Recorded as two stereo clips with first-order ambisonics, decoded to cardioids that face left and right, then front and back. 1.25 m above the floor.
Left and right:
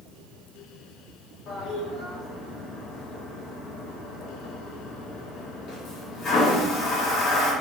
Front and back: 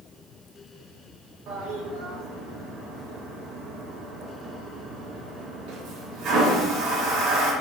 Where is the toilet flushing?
150° left, 0.6 m.